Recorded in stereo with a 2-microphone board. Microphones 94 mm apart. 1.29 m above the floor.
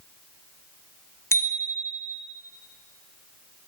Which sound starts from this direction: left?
A bicycle bell, at 1.3 s.